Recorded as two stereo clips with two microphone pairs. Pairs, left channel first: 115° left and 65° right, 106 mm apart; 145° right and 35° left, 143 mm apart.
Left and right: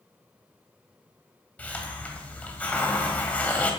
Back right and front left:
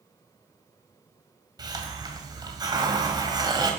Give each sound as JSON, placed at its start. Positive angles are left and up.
{"t": 1.6, "sound": "a hiss", "azimuth_deg": 50, "distance_m": 1.6}